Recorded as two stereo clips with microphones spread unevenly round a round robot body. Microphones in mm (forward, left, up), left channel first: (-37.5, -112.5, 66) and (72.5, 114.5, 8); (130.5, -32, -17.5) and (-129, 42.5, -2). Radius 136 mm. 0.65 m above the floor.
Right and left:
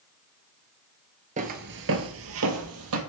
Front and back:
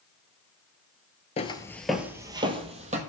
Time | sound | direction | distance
1.4 | footsteps | 10° left | 0.6 m